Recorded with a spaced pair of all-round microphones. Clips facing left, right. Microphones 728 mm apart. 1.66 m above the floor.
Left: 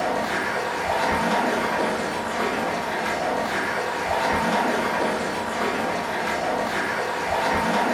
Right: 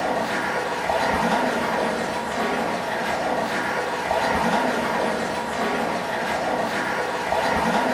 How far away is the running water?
About 1.6 m.